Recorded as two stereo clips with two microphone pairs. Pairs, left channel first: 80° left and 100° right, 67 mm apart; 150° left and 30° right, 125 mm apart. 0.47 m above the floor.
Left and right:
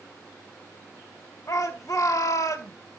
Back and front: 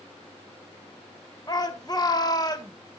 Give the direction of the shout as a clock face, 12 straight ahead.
9 o'clock.